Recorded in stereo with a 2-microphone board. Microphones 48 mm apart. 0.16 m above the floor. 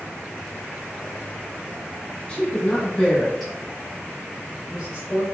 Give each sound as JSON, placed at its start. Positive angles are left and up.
{"t": 2.3, "sound": "a woman speaking", "side_deg": 25, "distance_m": 1.7}